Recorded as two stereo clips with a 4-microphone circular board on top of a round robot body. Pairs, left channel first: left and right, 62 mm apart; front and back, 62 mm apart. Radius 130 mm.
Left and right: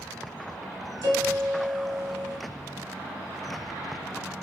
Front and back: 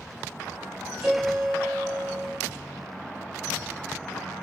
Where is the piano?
100° right, 3 m.